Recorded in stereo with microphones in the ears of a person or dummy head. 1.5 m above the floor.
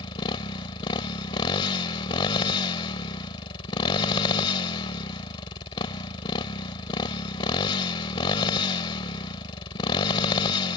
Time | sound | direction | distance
0.0 | a motorcycle | 30° left (ahead or behind) | ?